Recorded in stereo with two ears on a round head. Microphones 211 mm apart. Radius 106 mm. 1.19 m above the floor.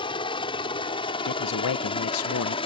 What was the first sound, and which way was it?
A helicopter, 25° left (ahead or behind).